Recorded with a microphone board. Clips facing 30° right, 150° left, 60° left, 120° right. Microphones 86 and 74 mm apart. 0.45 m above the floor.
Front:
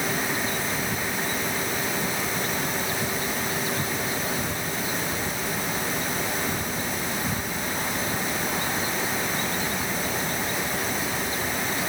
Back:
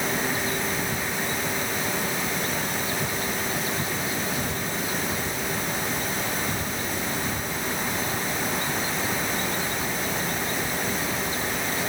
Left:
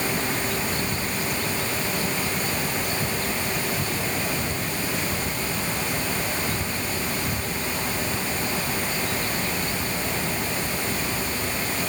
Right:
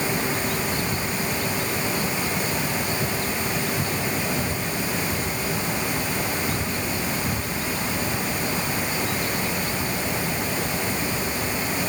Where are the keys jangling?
I don't hear keys jangling.